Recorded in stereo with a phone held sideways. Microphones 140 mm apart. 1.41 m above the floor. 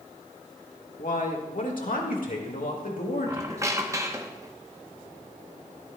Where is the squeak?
25° right (ahead or behind), 0.8 m.